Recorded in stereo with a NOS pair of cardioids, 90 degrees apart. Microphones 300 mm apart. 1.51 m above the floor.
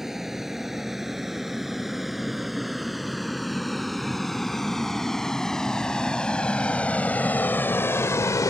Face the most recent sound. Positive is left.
turn(degrees=20)